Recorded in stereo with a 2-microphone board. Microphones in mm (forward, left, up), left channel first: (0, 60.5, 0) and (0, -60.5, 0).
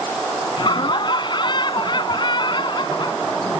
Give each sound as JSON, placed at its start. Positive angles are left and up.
{"t": 0.6, "sound": "laughter", "side_deg": 40}